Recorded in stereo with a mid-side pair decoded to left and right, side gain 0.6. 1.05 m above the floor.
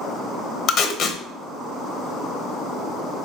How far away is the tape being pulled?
About 0.9 m.